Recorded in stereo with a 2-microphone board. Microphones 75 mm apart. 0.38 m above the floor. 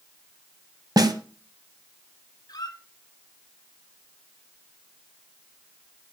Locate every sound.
1.0 s a snare drum: 60° right (ahead or behind), 1.3 m
2.5 s a squeak: 70° left (ahead or behind), 1.9 m